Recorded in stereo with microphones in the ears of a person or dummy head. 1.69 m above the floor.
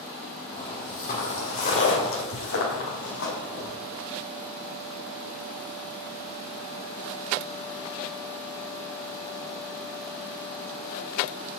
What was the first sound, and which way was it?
Footsteps, 30° left (ahead or behind).